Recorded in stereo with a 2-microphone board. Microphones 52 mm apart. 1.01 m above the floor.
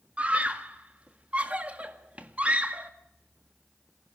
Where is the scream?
30° right (ahead or behind), 1.7 m.